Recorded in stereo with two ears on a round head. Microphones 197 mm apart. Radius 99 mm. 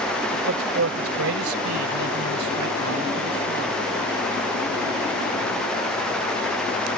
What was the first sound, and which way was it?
A man speaking, 70° right (ahead or behind).